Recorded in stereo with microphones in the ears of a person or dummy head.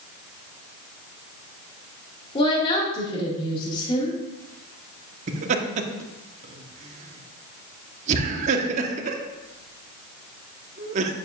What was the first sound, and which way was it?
A woman speaking, 25° left (ahead or behind).